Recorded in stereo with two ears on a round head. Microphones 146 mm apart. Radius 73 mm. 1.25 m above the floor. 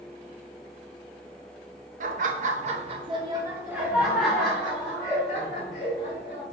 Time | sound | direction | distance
2.0 | laughter | 55° right (ahead or behind) | 0.7 m